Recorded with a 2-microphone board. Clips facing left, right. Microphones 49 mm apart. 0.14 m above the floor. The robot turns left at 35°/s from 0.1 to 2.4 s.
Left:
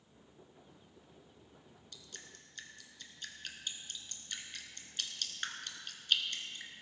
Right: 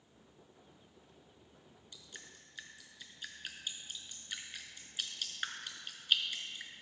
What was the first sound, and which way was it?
Dripping, 20° right (ahead or behind).